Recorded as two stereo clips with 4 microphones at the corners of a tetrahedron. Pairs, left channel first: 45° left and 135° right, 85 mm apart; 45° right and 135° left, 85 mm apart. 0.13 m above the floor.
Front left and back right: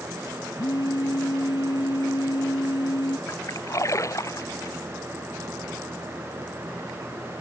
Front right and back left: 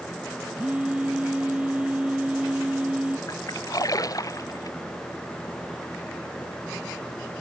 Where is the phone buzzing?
60° left.